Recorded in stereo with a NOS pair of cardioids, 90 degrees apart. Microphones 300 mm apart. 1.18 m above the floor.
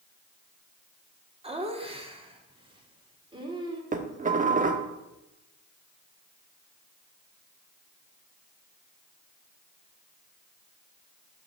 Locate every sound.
1.4 s laughter: 20° right, 2.5 m; by 3.8 s 15° right, 3.5 m
3.9 s dishes clattering: 30° right, 1.4 m